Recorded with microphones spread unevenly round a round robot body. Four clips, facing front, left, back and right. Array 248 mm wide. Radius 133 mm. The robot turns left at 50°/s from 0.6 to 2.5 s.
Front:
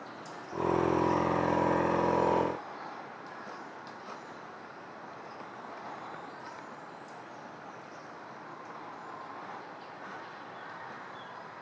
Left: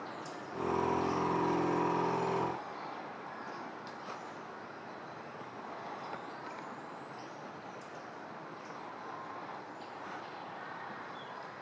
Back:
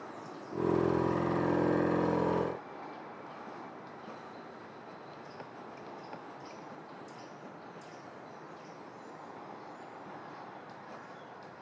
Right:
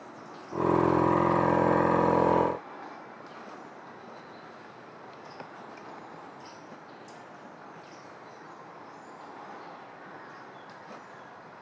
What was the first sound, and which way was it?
Only background noise.